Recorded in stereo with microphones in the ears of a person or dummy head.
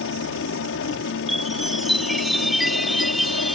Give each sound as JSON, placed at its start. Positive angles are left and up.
{"t": 0.0, "sound": "a helicopter", "side_deg": 60}
{"t": 1.3, "sound": "a chime", "side_deg": 0}